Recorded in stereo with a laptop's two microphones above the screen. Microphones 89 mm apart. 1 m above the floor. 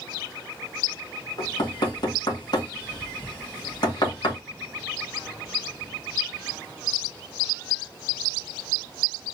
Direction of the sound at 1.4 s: 50° left (ahead or behind).